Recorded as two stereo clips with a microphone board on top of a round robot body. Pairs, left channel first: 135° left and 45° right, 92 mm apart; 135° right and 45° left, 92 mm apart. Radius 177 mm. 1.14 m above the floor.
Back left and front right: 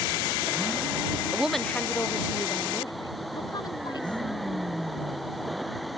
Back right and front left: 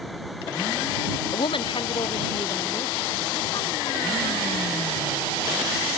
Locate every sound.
1.3 s a woman speaking: 115° right; by 4.2 s straight behind